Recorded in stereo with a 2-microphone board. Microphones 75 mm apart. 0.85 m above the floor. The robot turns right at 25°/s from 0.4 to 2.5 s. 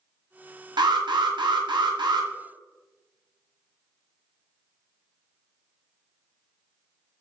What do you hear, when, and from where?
0.8 s an alarm: 105° right, 1.2 m; by 2.3 s 70° right, 1.2 m